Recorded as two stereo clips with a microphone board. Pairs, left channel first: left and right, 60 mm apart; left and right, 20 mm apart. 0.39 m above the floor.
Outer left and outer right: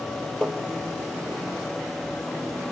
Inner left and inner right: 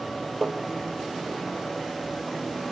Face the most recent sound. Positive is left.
turn(degrees=15)  # may be behind; listen again after turning